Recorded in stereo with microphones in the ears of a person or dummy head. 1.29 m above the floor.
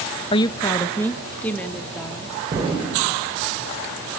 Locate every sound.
0.3 s a woman speaking: 25° left (ahead or behind), 0.7 m; by 2.4 s 5° left (ahead or behind), 3.5 m
2.5 s an explosion: 30° right (ahead or behind), 5 m